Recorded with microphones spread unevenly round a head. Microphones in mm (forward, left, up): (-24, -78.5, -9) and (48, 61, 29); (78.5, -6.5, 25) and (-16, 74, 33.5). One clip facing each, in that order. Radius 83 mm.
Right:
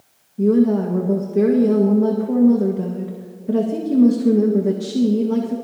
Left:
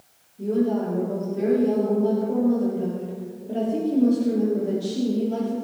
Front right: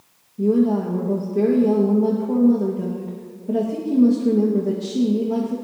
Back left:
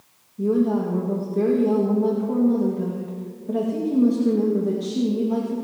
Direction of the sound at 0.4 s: 115° right.